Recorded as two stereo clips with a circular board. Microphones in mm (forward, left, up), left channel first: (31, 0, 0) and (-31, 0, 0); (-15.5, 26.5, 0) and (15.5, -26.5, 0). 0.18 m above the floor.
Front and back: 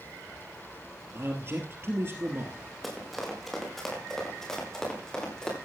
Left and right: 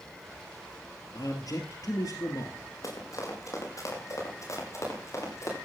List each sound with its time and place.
1.1 s a man speaking: 135° left, 3.5 m
2.8 s running footsteps: 90° left, 6.5 m; by 5.5 s 80° left, 9 m